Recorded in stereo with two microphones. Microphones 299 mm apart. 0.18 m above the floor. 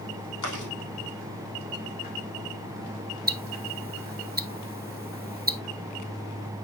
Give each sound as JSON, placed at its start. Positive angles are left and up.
{"t": 0.4, "sound": "chewing", "side_deg": 75, "distance_m": 3.5}
{"t": 3.3, "sound": "ticking", "side_deg": -30, "distance_m": 0.7}